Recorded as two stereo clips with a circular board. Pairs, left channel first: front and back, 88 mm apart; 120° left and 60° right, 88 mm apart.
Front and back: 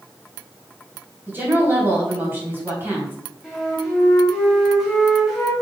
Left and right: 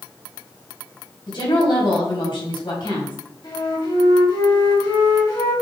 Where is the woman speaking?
115° left, 3 m.